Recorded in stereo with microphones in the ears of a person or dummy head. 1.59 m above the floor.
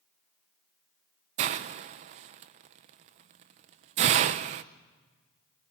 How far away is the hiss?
About 0.6 m.